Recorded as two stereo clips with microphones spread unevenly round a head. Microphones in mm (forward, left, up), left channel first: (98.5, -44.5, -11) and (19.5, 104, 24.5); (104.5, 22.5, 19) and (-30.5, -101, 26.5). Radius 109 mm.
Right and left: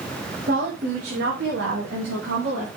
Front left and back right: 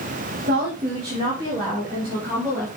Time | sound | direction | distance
0.5 | a woman speaking | 170° left | 2 m